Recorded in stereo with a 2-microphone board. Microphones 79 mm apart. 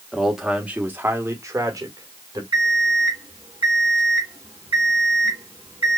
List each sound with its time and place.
0.1 s a man speaking: centre (ahead or behind), 1.3 m; by 2.4 s 50° right (ahead or behind), 1.9 m
2.5 s an alarm clock: 70° right (ahead or behind), 2.5 m